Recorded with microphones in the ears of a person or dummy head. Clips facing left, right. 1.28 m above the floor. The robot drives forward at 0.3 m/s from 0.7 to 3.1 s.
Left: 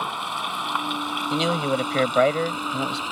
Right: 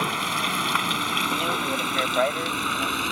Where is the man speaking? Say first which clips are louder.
Left 7 dB; 55° left (ahead or behind).